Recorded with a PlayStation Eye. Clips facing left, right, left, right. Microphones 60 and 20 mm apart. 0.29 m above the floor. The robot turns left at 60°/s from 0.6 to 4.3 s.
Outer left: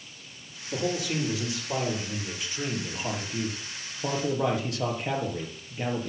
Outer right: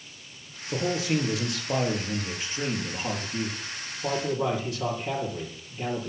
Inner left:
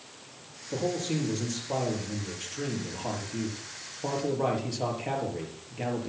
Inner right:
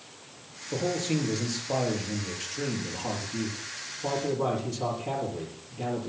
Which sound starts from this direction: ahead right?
A man speaking, at 0.7 s.